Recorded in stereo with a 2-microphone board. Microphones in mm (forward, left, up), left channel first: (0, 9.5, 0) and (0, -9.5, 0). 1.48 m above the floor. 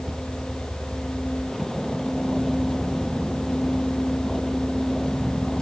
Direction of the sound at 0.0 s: 5° left (ahead or behind).